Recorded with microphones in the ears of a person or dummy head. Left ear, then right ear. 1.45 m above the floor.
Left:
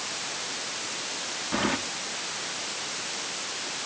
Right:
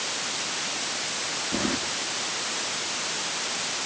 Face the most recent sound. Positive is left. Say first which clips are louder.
# left 3 dB
turn(degrees=45)  # may be behind; listen again after turning